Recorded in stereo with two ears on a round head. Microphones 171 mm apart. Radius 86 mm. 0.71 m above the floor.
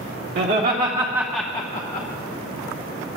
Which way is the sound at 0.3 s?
60° right (ahead or behind).